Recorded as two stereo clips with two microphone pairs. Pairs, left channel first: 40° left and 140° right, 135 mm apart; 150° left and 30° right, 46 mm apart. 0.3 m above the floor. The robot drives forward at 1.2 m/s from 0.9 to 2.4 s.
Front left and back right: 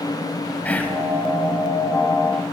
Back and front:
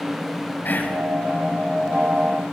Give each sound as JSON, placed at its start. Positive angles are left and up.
{"t": 0.7, "sound": "whispering", "azimuth_deg": 120, "distance_m": 1.5}